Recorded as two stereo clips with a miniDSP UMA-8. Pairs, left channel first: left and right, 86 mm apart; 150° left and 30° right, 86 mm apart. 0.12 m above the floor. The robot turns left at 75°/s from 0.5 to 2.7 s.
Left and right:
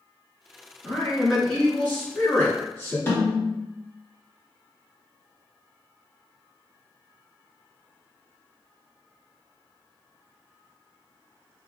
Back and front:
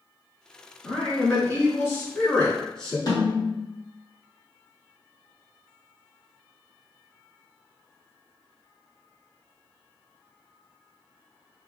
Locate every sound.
0.8 s a man speaking: 140° right, 1.2 m; by 3.0 s 80° left, 1.2 m
3.1 s a snare drum: 140° left, 1.1 m